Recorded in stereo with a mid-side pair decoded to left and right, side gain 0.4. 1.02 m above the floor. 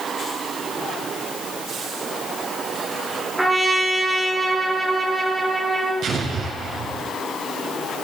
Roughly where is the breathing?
I don't hear breathing.